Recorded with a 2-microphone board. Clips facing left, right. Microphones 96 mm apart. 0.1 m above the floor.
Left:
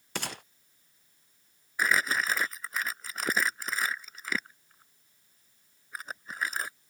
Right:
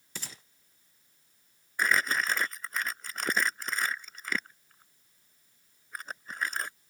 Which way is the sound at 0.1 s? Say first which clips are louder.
Left 10 dB; 70° left (ahead or behind).